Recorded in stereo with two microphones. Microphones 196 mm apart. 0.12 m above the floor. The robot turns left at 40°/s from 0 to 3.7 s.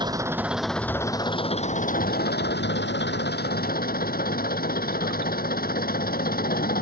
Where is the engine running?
155° right; by 6.8 s 60° left.